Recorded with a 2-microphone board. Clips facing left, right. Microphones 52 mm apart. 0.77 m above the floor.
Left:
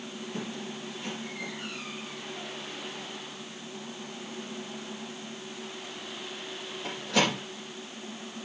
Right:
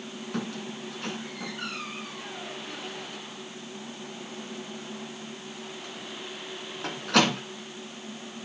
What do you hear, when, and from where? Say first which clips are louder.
0.3 s a squeak: right 4 dB; 70° right (ahead or behind), 2.5 m